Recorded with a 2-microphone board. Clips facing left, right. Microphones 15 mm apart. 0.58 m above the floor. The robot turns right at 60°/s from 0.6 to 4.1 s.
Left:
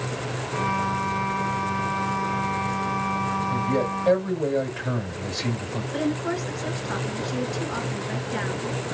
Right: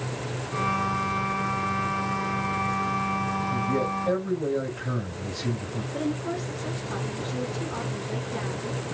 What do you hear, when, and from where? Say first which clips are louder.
3.5 s a man speaking: left 2 dB; 80° left, 2.5 m; by 5.8 s 120° left, 2.5 m
5.9 s a woman speaking: left 3 dB; 80° left, 3 m